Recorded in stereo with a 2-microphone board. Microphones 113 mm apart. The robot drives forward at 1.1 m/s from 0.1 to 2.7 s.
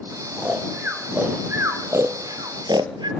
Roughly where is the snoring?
Centre.